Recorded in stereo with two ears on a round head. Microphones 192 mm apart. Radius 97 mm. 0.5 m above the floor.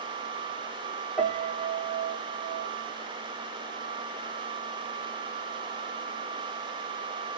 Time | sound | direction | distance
1.2 | a piano | centre (ahead or behind) | 0.8 m